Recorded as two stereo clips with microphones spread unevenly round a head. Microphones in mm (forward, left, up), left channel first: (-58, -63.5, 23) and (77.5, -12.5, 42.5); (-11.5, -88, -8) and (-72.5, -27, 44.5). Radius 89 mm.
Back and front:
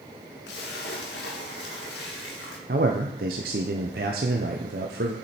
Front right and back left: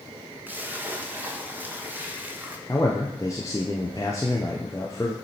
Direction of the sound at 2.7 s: 40° left.